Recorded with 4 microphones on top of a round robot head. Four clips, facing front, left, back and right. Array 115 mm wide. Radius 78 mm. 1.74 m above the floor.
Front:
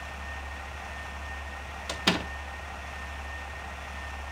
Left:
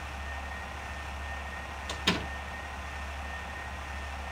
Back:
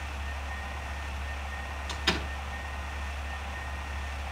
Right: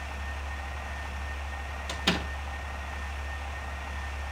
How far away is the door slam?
About 2.5 m.